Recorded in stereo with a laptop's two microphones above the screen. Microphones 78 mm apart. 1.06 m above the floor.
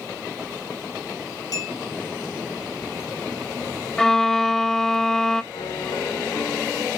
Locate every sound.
1.5 s a clink: 55° left (ahead or behind), 7.5 m
4.0 s a violin: 10° left (ahead or behind), 0.5 m
5.5 s a piano: 80° left, 3.5 m